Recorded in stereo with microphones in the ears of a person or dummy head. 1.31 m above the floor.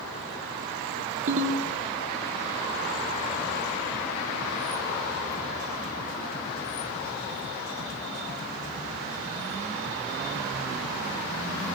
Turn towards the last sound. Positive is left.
turn(degrees=-45)  # may be behind; listen again after turning